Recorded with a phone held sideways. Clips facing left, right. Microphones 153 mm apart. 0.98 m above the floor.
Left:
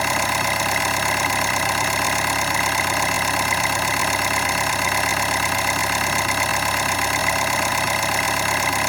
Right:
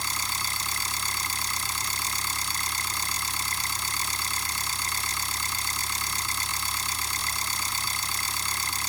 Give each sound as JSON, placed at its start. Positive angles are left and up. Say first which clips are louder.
{"t": 0.0, "sound": "an engine running", "louder": "left 14 dB", "side_deg": 75}